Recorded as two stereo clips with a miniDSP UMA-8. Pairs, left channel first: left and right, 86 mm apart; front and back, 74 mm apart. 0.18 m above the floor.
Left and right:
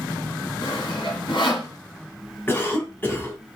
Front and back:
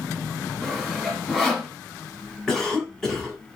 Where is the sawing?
80° left, 1.9 m.